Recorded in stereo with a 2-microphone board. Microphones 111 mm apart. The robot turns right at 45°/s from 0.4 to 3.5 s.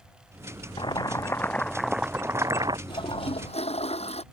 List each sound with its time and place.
0.8 s boiling: 135° left; by 2.8 s 135° right
2.9 s a toilet flushing: 45° left (ahead or behind); by 4.2 s 70° left (ahead or behind)